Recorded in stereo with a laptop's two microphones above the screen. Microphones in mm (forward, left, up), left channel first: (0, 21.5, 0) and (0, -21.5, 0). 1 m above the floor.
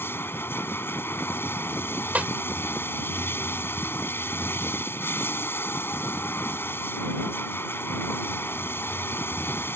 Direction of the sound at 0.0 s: 70° left (ahead or behind).